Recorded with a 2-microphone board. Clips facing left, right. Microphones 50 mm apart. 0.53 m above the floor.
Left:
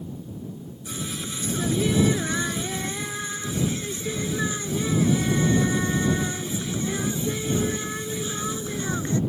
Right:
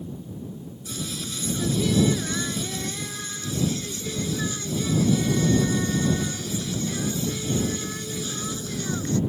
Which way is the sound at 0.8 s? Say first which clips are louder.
Left 1 dB; 25° left (ahead or behind).